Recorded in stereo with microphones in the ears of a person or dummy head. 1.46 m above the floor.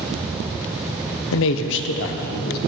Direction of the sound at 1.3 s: 70° left (ahead or behind).